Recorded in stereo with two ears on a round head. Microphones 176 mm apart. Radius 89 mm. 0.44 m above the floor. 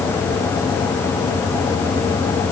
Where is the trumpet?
No trumpet in this recording.